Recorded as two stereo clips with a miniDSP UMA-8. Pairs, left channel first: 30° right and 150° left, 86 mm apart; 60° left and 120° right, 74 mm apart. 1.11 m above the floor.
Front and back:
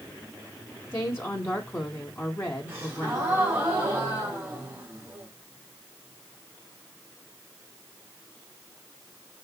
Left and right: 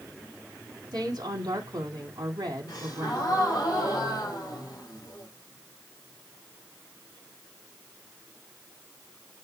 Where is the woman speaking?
95° right, 2 m.